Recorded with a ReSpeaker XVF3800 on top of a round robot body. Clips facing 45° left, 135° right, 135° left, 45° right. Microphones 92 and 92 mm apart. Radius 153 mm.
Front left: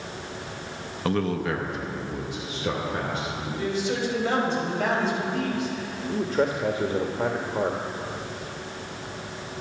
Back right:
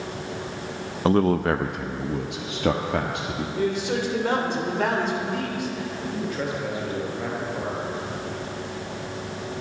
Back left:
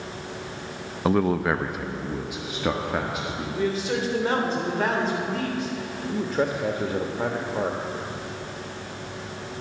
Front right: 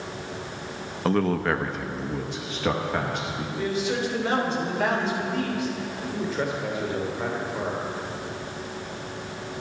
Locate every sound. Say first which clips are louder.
1.1 s a man speaking: back right 6 dB, back left 1 dB; 155° right, 0.5 m; by 3.5 s 145° right, 1.6 m
3.6 s a man speaking: back right 2 dB, back left 1 dB; 175° right, 3.5 m
6.1 s a man speaking: front left 6 dB, back left 4 dB; 95° left, 1.4 m